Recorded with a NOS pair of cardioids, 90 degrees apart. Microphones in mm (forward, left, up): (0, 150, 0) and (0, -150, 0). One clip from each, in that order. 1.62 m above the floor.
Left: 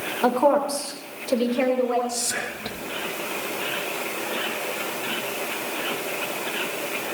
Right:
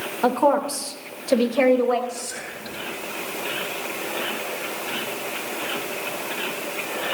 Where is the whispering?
50° left, 3.5 m.